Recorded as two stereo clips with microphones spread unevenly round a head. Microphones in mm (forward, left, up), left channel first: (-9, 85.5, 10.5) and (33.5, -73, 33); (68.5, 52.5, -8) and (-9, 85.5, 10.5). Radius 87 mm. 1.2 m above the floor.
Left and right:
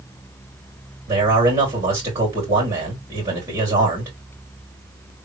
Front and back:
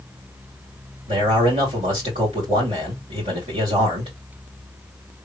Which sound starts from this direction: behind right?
A man speaking, at 1.1 s.